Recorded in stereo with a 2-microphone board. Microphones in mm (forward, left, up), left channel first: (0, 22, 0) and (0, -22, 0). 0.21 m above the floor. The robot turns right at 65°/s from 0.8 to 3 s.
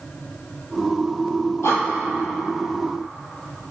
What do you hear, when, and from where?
1.6 s breathing: 80° left, 1.0 m; by 1.9 s 85° left, 1.0 m